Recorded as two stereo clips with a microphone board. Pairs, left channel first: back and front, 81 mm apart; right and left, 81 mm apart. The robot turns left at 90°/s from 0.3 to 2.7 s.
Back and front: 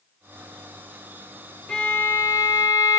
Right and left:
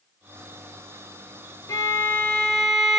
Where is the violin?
105° right, 0.9 m; by 3.0 s 160° left, 0.9 m.